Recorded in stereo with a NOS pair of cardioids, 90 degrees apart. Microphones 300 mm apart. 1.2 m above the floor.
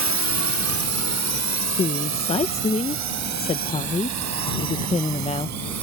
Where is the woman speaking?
20° left.